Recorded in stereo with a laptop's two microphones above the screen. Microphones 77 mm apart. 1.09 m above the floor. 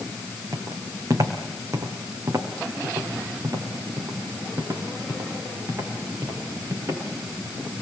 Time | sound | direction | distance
0.5 | footsteps | 45° right (ahead or behind) | 4 m